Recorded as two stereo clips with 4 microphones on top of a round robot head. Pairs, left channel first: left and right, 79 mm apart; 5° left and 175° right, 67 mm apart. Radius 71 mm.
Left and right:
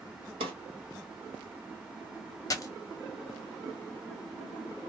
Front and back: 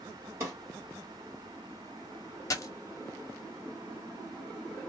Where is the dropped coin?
45° left, 0.6 m.